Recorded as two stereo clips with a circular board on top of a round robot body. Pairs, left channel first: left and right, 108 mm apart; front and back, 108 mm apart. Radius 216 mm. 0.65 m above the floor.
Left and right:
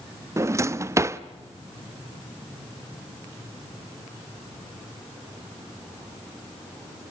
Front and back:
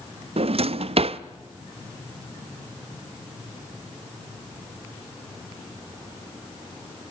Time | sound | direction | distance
0.4 | a drawer | 155° right | 0.7 m